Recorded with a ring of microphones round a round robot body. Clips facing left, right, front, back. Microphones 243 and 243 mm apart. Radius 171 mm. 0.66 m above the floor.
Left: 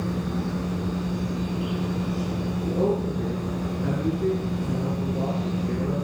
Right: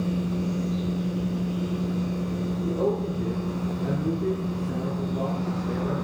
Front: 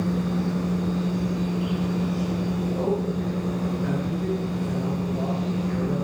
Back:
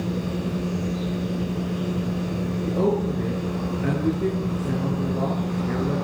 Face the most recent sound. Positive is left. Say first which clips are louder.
# left 2 dB, back 5 dB
turn(degrees=155)